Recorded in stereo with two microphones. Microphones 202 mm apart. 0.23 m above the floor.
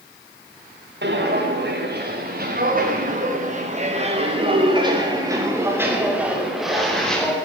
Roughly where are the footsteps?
Right.